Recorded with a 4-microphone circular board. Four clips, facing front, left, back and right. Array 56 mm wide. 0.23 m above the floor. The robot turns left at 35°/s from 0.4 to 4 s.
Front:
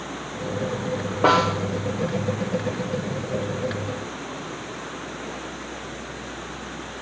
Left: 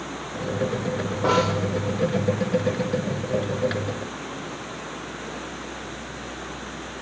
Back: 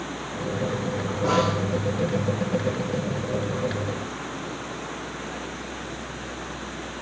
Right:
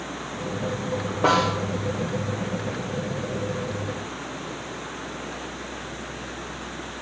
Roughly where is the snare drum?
Ahead.